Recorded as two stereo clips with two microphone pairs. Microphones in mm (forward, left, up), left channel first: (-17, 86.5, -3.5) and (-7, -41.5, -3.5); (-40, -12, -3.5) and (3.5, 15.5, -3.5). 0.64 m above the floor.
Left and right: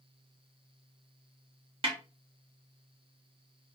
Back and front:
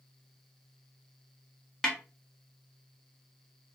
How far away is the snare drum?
About 0.9 m.